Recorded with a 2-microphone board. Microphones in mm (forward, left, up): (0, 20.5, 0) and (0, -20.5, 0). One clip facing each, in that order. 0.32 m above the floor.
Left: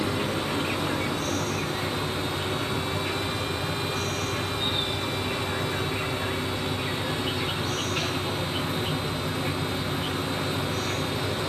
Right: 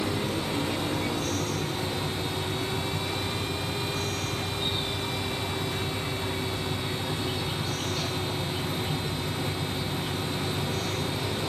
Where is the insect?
65° left (ahead or behind), 3 m.